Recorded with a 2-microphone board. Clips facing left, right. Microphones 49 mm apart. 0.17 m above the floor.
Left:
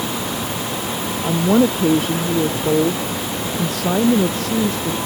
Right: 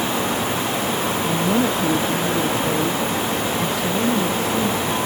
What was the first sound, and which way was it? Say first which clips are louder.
A woman speaking: left 6 dB; 45° left (ahead or behind).